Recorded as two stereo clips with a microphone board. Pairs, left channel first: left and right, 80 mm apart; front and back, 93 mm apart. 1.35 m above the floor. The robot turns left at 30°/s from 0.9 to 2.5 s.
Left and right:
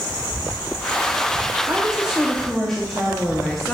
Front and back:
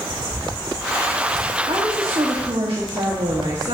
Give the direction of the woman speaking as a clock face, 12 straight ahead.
5 o'clock.